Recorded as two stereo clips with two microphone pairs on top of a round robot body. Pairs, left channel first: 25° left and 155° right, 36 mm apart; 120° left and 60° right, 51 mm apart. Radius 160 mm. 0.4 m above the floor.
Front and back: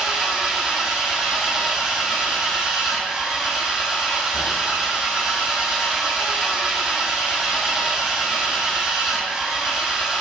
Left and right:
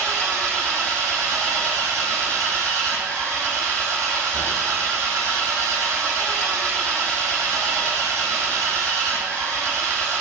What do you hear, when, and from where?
0.0 s an engine running: 90° right, 5 m